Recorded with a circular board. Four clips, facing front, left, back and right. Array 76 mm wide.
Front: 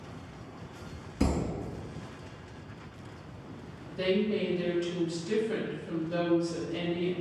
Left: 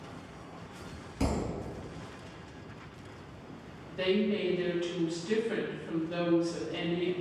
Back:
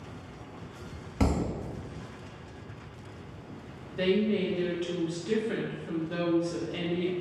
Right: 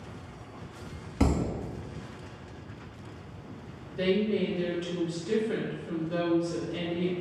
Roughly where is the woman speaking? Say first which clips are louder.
Right 2 dB, back 2 dB; behind.